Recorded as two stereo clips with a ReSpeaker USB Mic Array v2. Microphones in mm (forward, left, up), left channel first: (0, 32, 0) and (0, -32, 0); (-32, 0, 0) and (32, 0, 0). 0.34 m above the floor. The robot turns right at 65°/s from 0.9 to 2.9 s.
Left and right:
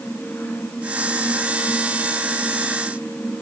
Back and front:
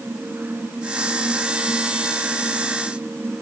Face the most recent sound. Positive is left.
No sound to turn to.